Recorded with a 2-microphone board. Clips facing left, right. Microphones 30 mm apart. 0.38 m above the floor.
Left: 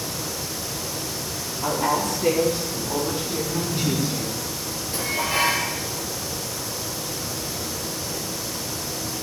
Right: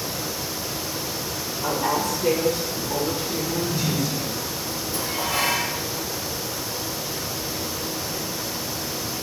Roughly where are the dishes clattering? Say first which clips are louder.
Left 3 dB; left.